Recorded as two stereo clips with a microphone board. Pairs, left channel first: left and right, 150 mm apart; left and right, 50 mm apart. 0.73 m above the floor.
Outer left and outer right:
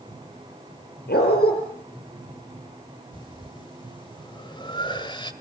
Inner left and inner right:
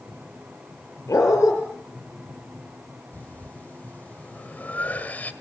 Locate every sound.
1.1 s a dog barking: 90° left, 7.5 m
3.1 s breathing: 30° left (ahead or behind), 1.6 m